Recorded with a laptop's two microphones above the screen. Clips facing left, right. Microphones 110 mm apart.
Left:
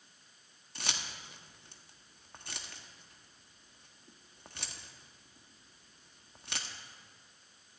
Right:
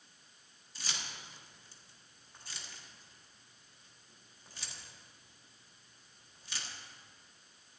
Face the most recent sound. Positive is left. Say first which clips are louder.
# left 3 dB
turn(degrees=65)  # may be behind; listen again after turning